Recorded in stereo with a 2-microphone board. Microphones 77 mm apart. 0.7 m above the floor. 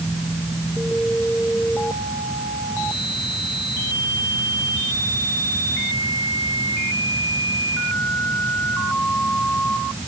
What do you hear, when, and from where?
Only background noise.